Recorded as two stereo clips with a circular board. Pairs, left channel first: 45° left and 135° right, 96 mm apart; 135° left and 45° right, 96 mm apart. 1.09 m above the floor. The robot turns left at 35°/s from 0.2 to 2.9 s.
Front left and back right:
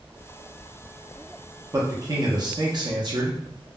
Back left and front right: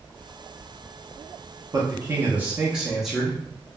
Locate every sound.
1.7 s a man speaking: 90° right, 0.6 m; by 3.4 s 130° right, 0.6 m